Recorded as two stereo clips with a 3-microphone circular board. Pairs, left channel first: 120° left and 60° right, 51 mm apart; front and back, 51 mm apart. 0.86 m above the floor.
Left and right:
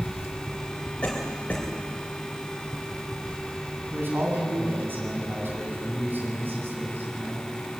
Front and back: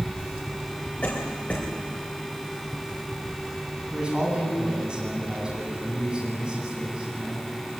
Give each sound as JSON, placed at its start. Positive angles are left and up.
{"t": 1.0, "sound": "a cough", "azimuth_deg": 55, "distance_m": 3.0}
{"t": 3.9, "sound": "a man speaking", "azimuth_deg": -105, "distance_m": 9.0}